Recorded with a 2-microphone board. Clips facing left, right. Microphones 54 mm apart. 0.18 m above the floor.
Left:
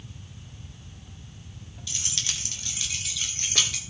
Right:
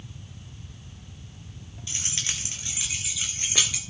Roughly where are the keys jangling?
Right.